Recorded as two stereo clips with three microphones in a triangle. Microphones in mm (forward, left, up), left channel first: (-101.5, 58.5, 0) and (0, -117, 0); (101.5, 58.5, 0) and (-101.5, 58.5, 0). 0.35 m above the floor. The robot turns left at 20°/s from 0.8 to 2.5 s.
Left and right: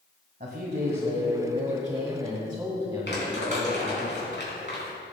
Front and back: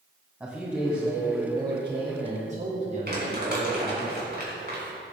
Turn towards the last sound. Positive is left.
turn(degrees=145)